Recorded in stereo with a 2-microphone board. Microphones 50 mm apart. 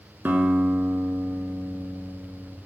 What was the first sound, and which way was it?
A guitar, 40° right (ahead or behind).